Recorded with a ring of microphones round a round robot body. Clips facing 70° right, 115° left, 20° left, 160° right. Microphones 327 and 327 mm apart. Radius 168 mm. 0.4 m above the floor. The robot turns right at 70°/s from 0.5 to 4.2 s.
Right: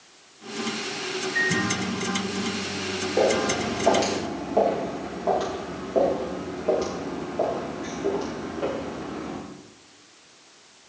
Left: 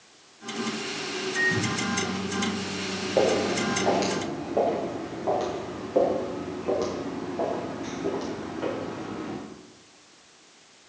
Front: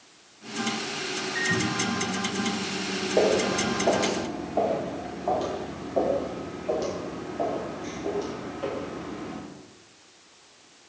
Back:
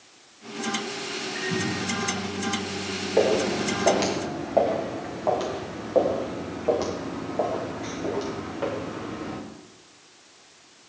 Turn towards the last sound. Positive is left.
turn(degrees=180)